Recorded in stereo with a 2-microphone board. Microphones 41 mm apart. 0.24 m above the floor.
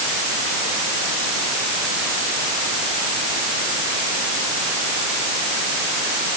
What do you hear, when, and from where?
Only background noise.